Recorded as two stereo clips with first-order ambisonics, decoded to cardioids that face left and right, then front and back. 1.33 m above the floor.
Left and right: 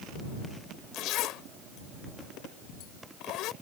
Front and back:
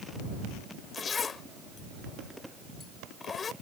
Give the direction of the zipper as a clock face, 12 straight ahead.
10 o'clock.